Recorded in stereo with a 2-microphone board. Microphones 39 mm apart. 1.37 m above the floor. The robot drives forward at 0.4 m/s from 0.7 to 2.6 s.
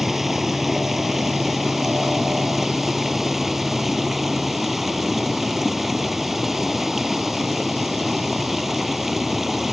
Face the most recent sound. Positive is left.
turn(degrees=-5)  # may be behind; listen again after turning